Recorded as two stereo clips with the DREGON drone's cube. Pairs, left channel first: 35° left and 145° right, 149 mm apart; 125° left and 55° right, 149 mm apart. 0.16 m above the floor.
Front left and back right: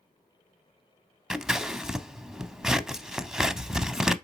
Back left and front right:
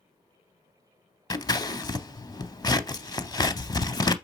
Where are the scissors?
130° left, 0.6 m.